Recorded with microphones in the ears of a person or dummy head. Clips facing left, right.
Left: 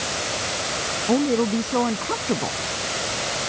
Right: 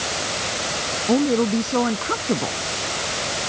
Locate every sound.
1.1 s a woman speaking: 5° right (ahead or behind)